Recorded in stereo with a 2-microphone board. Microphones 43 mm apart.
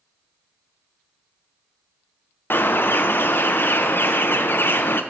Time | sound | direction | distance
2.5 | a bird | 60° left (ahead or behind) | 0.5 m